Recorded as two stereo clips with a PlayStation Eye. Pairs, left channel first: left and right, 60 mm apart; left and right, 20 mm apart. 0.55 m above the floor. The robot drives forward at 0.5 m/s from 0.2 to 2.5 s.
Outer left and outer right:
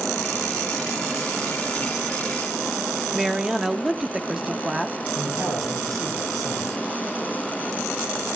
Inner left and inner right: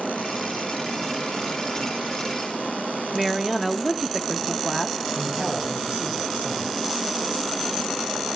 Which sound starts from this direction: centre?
A woman speaking, at 3.1 s.